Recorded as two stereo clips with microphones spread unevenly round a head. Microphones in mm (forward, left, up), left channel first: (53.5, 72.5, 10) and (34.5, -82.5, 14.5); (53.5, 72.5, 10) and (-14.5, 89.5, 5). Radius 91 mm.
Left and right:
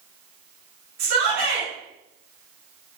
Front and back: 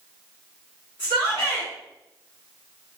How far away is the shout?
About 2.5 m.